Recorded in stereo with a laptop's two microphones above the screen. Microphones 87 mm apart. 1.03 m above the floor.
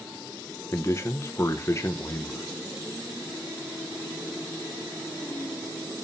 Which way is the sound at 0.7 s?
35° left (ahead or behind).